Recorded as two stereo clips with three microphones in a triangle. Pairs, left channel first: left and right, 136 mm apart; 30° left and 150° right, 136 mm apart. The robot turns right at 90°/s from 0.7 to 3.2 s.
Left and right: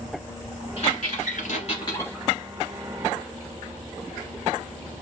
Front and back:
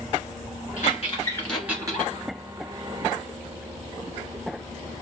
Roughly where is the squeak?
Ahead left.